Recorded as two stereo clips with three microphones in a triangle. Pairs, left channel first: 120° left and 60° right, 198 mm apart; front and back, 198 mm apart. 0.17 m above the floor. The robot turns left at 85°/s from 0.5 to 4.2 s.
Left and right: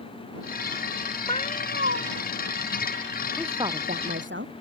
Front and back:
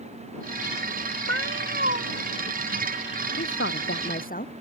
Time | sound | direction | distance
1.3 | a cat meowing | 175° right | ?
3.4 | a woman speaking | 30° left | ?